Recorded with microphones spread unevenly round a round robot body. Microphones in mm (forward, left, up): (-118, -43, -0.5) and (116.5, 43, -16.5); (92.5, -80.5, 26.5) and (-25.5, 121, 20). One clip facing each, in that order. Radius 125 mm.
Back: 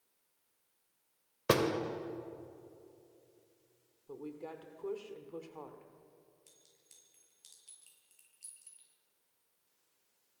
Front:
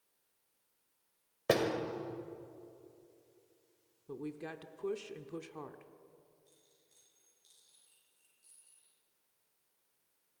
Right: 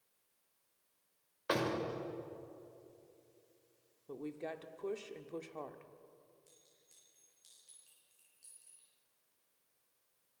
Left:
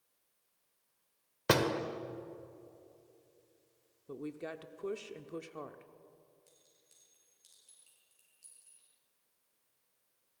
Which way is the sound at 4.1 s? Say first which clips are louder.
Front 2 dB, left 1 dB; 50° left.